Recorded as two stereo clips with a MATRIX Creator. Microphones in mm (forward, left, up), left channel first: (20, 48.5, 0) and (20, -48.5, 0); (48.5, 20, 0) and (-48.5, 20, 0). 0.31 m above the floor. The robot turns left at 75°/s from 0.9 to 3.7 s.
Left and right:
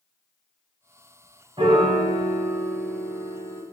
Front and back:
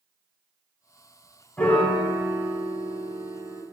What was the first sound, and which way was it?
A piano, 70° right.